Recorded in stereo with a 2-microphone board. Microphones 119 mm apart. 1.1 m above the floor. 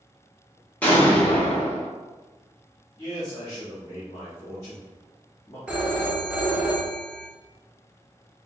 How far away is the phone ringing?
About 0.7 m.